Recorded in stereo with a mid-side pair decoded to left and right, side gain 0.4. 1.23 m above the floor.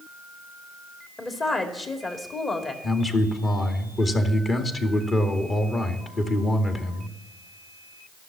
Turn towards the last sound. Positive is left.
turn(degrees=45)